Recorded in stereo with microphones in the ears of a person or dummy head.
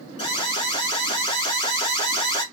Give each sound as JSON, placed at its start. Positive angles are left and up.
{"t": 0.2, "sound": "an alarm", "side_deg": 35, "distance_m": 2.5}